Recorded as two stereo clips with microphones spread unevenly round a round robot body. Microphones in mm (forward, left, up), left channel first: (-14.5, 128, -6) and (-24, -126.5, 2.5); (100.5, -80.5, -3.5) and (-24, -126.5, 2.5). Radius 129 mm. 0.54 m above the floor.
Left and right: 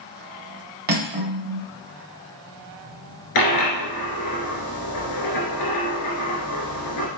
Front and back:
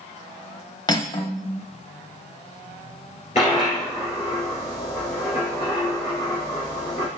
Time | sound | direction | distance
0.9 | cutlery clinking | 35° right | 0.7 m
3.4 | a dropped coin | 90° left | 2.0 m